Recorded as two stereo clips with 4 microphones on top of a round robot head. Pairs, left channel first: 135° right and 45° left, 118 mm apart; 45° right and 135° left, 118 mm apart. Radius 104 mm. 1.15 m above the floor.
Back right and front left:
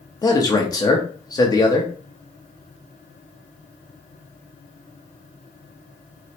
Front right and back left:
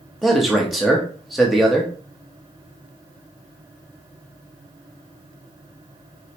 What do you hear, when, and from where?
0.2 s a man speaking: 140° right, 0.7 m